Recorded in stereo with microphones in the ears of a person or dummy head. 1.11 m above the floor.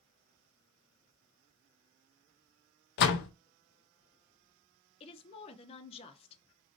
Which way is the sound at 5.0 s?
30° left (ahead or behind).